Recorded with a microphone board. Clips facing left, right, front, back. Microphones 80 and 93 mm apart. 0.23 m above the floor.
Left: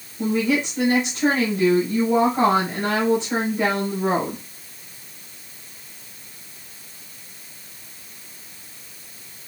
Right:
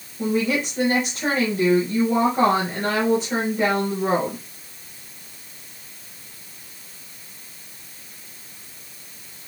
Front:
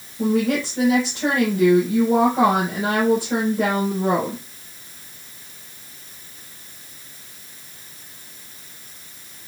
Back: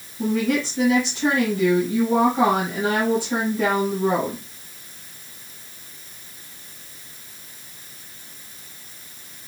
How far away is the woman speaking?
About 3 m.